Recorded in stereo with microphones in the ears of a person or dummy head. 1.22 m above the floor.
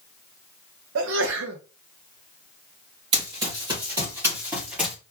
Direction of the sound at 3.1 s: 25° right (ahead or behind).